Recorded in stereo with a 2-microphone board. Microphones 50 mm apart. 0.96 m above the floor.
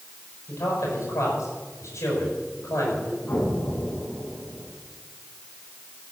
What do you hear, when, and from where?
0.5 s a man speaking: 85° left, 6.5 m
3.3 s an explosion: 45° left (ahead or behind), 8 m